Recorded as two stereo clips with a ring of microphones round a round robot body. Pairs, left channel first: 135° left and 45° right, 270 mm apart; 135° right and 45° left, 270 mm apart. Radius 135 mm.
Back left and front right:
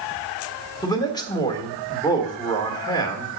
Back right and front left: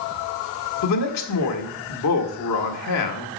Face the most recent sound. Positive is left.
turn(degrees=-150)